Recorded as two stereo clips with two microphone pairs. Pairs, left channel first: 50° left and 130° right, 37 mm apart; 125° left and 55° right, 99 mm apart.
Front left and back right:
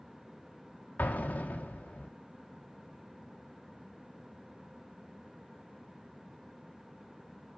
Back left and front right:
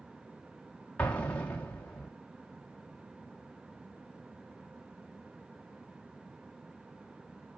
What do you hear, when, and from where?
1.0 s an explosion: 55° left, 1.4 m